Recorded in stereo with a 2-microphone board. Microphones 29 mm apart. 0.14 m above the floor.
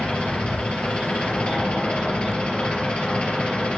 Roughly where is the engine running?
Left.